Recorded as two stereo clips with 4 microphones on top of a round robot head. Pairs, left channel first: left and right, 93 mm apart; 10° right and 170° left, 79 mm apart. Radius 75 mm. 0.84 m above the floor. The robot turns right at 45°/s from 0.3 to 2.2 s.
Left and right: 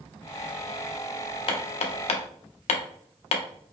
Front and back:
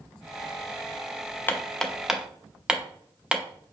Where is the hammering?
55° left, 0.6 m; by 3.4 s 90° left, 0.6 m.